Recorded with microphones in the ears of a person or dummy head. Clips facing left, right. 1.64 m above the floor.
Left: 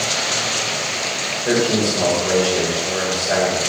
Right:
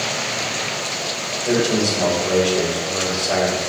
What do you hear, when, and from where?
1.4 s a man speaking: 15° left (ahead or behind), 5.5 m